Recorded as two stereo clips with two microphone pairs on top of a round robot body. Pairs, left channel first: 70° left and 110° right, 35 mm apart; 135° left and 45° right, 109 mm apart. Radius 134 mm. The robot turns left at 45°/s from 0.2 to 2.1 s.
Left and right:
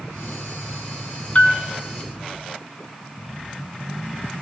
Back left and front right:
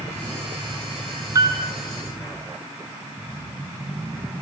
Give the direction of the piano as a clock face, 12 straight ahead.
11 o'clock.